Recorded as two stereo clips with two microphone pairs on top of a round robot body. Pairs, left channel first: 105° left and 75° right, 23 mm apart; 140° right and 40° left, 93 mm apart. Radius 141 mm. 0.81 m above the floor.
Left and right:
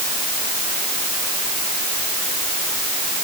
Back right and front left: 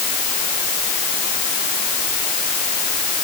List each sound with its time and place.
Only background noise.